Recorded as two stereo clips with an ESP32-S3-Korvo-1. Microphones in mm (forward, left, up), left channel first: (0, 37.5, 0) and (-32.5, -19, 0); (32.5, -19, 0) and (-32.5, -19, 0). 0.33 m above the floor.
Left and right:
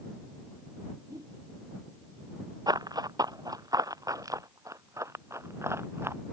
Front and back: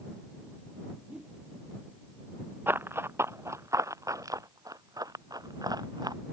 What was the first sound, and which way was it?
A whoosh, 105° right.